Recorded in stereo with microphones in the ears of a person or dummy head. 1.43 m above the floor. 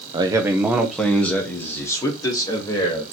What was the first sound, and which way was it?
A man speaking, 25° right (ahead or behind).